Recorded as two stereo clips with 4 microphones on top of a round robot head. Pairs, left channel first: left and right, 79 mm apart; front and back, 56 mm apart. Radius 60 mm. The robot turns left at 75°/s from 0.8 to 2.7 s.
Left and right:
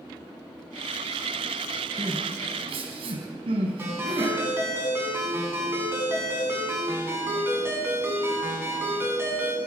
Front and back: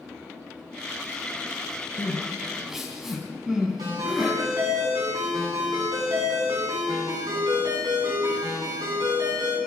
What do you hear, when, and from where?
2.0 s crying: 45° right, 4.5 m; by 4.3 s 100° right, 4.5 m
3.8 s a ringtone: 150° right, 10 m